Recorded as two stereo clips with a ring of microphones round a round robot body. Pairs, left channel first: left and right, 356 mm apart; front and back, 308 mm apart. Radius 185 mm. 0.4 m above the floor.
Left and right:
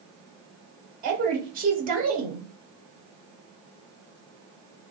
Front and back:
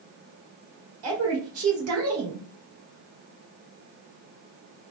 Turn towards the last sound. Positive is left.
turn(degrees=-150)